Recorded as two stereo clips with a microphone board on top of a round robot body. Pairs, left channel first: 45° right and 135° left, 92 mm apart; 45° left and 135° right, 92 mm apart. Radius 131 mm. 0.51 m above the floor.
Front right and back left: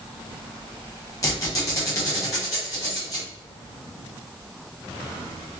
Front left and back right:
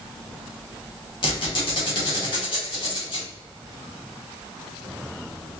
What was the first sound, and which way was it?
A squeak, 10° left.